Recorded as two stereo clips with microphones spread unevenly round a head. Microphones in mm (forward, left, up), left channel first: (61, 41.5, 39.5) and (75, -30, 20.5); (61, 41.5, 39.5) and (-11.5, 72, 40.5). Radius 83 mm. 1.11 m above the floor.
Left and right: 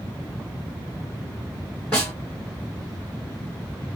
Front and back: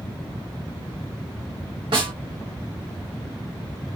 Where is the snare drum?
175° right, 3 m.